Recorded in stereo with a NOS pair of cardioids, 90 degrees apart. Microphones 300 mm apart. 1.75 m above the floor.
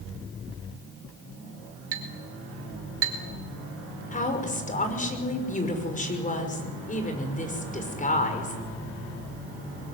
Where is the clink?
50° right, 5 m.